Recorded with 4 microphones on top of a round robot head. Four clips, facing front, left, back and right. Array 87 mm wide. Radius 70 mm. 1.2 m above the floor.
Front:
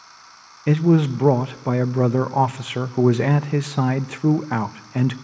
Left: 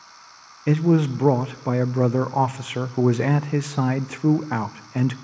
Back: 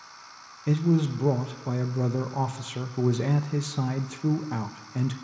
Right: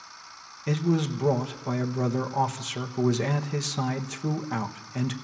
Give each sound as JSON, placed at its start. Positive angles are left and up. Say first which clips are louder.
{"t": 0.7, "sound": "a man speaking", "louder": "left 7 dB, front 7 dB", "azimuth_deg": 35, "distance_m": 0.7}